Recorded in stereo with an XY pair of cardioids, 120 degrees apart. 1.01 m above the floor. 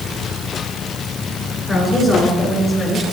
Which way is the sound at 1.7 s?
10° left.